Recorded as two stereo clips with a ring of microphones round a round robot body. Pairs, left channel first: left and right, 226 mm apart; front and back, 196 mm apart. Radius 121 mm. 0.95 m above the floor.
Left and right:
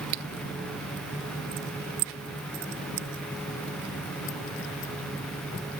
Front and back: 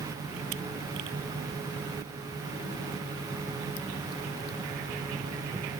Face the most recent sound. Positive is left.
No sound to turn to.